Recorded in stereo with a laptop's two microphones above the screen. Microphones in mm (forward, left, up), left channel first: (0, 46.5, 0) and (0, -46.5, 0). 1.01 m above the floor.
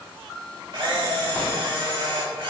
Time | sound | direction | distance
0.7 | a camera shutter | 55° right (ahead or behind) | 2.5 m